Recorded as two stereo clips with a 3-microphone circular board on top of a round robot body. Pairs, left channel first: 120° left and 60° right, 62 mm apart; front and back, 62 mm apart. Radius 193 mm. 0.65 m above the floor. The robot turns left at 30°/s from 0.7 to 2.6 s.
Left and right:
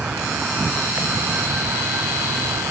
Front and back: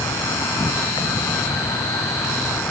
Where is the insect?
15° left; by 2.7 s 45° right.